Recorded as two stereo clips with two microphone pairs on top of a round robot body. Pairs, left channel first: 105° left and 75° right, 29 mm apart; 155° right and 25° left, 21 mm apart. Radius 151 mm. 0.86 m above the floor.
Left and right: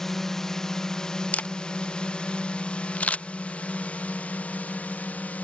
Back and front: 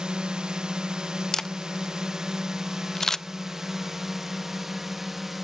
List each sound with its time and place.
0.0 s a drone: 30° left; by 5.4 s 95° left
1.3 s a camera shutter: 130° left